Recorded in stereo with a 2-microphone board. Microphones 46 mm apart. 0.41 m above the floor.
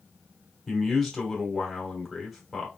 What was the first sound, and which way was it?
A man speaking, centre (ahead or behind).